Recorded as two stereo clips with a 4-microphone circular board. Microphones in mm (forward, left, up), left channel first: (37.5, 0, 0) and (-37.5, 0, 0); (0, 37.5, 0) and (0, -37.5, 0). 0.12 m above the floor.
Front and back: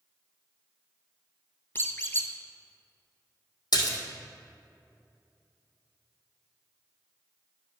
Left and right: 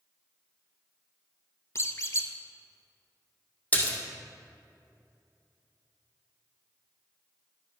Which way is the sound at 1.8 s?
55° left.